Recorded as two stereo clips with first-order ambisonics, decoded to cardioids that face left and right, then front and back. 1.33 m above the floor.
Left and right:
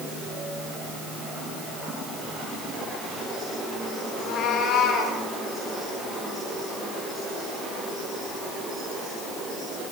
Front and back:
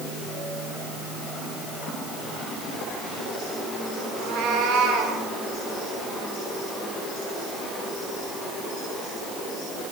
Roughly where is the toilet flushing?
No toilet flushing in this recording.